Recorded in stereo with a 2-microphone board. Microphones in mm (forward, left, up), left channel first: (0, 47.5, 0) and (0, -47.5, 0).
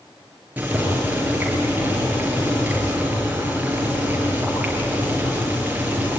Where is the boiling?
15° right (ahead or behind), 7 m.